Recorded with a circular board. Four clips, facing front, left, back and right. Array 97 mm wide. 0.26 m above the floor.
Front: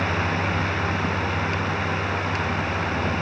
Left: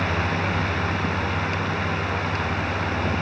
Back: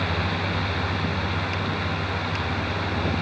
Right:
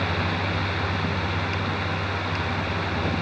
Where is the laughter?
No laughter in this recording.